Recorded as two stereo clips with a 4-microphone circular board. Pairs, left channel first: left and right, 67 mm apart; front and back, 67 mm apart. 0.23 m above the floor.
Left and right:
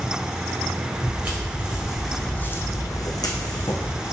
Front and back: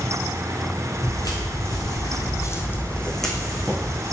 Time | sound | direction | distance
1.0 | footsteps | 25° right | 1.1 m